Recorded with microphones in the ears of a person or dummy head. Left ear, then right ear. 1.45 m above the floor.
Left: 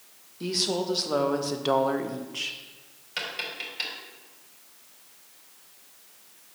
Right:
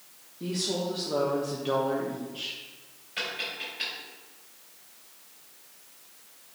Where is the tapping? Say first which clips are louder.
Even; 45° left (ahead or behind), 3.5 m.